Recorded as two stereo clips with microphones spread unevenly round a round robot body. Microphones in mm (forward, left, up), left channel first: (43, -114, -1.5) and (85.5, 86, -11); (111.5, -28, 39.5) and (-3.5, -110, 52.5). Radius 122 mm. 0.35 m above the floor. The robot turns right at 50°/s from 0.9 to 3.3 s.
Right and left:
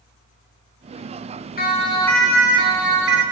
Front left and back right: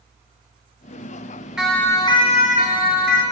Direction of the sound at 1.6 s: 55° right.